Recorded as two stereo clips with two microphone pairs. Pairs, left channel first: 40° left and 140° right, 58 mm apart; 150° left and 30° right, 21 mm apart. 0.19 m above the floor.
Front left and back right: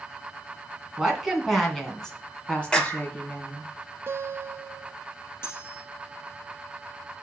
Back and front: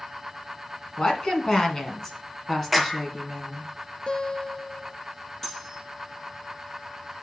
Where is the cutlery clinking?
80° left, 2.5 m.